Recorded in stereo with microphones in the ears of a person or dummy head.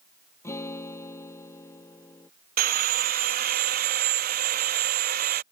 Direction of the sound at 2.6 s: 45° right (ahead or behind).